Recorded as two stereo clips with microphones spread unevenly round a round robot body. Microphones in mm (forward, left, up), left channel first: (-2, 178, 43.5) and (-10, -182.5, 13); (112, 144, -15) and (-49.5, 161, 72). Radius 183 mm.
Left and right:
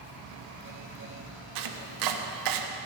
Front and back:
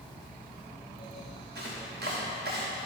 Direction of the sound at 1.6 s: 120° right.